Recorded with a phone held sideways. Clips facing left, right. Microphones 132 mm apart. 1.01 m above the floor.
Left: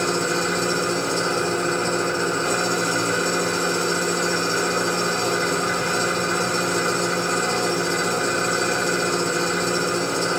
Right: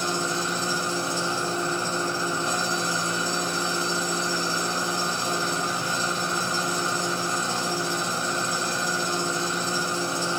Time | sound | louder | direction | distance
0.0 | an engine running | left 5 dB | 75° left (ahead or behind) | 3 m